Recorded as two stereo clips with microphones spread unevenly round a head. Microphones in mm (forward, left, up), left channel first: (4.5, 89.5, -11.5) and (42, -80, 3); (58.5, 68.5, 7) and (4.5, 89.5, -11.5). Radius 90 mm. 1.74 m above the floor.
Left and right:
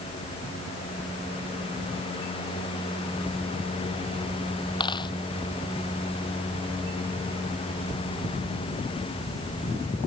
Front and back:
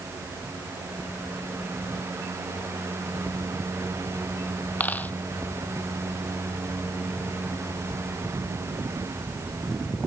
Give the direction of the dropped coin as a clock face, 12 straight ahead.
11 o'clock.